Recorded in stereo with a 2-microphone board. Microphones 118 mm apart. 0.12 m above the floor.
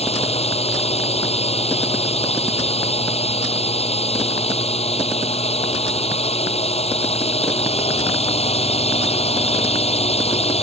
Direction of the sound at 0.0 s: 60° left (ahead or behind).